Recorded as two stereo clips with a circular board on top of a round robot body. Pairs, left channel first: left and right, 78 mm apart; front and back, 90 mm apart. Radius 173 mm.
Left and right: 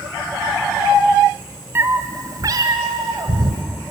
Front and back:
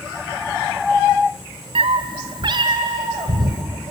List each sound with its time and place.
1.8 s a cat meowing: 155° right, 0.6 m; by 3.6 s 130° right, 2 m